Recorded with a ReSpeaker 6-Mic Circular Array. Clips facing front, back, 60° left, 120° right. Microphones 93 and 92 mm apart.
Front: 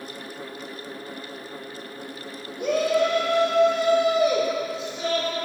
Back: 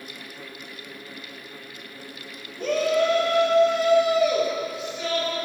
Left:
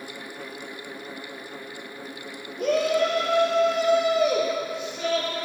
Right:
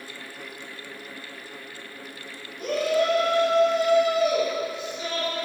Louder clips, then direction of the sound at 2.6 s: Even, left 2 dB; 75° left.